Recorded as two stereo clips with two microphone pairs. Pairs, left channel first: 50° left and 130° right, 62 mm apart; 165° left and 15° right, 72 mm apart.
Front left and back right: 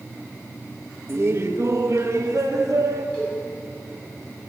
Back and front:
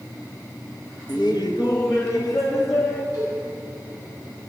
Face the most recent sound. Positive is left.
turn(degrees=125)